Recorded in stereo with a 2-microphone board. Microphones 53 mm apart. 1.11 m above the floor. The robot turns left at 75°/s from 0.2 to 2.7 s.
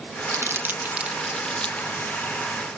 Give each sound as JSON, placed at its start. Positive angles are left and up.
{"t": 0.3, "sound": "crumpling", "side_deg": -60}